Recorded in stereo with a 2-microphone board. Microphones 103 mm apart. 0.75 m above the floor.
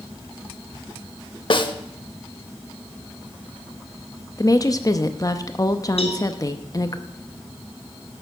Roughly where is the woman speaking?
Left.